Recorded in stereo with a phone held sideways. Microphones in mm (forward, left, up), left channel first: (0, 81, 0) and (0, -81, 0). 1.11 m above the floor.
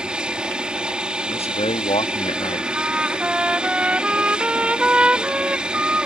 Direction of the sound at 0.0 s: 5° right (ahead or behind).